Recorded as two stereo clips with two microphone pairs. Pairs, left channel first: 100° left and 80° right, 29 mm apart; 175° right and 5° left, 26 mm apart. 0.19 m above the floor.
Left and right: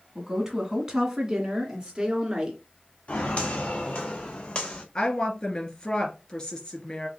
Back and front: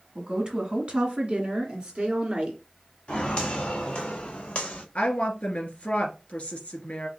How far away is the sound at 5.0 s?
About 2.5 m.